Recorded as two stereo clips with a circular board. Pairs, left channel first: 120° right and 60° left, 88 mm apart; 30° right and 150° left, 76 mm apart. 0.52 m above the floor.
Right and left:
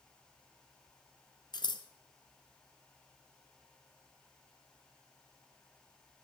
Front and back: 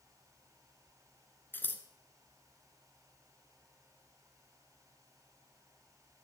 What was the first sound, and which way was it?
Scissors, 90° right.